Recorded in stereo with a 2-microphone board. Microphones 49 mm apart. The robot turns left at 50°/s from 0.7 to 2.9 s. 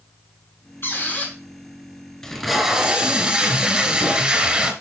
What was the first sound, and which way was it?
A squeak, 50° left (ahead or behind).